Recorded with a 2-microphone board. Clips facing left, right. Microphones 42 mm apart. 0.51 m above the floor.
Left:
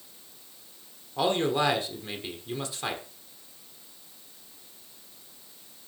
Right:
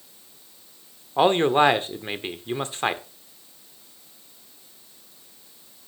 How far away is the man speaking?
About 1.3 m.